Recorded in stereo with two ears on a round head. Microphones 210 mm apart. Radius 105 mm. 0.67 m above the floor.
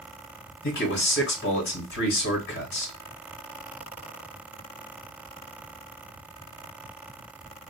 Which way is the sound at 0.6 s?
50° left (ahead or behind).